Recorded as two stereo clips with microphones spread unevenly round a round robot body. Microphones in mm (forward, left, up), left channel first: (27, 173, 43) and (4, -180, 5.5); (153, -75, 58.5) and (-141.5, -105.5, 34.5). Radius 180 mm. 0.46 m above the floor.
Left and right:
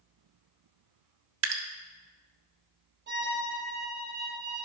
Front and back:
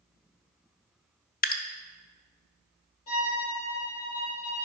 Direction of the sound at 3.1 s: 35° right.